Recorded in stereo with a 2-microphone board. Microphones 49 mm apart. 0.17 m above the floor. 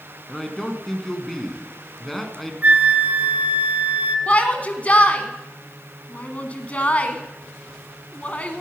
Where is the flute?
35° right (ahead or behind), 0.6 m.